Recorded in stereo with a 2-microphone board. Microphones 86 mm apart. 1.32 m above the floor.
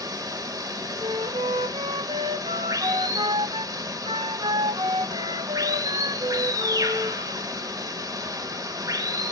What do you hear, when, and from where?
0.0 s running water: 45° right (ahead or behind), 0.8 m
1.0 s a flute: 70° right (ahead or behind), 0.5 m